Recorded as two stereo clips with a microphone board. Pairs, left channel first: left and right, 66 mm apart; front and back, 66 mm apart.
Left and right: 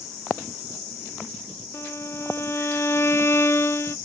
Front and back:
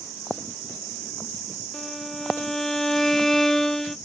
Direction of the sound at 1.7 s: 80° left.